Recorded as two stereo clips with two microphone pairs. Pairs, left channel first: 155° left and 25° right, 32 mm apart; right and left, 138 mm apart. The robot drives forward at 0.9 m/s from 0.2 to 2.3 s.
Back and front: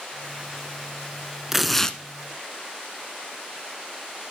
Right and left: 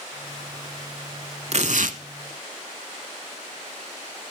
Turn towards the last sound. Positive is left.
turn(degrees=115)